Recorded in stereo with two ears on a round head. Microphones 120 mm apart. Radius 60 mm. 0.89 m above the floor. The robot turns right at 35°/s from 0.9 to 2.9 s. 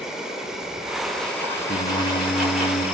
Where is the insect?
5° right, 3.5 m; by 3.0 s 65° left, 3.5 m.